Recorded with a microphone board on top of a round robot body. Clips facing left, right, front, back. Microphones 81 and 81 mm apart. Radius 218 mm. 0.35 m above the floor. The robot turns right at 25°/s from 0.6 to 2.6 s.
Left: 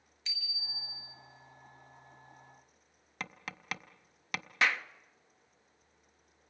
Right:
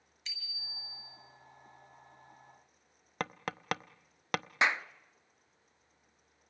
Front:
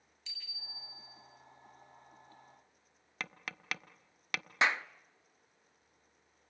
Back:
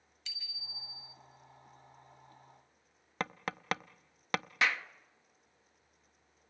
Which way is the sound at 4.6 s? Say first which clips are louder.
Even, front 2 dB; 40° right.